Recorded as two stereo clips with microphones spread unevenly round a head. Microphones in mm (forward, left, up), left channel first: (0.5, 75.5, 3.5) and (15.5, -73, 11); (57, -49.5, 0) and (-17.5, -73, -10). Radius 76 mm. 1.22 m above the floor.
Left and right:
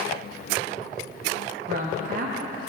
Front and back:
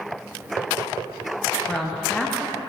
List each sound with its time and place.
1.7 s a woman speaking: 65° right, 0.8 m